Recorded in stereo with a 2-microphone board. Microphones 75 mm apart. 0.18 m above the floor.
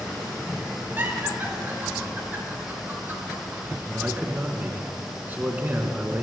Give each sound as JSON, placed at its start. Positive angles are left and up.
{"t": 1.0, "sound": "laughter", "side_deg": -25, "distance_m": 3.0}
{"t": 3.9, "sound": "a man speaking", "side_deg": -25, "distance_m": 1.6}